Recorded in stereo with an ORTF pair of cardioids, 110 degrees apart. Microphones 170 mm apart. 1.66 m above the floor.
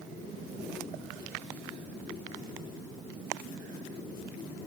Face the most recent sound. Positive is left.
No sound to turn to.